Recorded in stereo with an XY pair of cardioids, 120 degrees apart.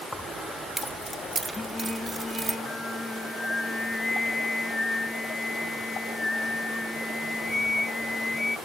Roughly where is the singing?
Ahead.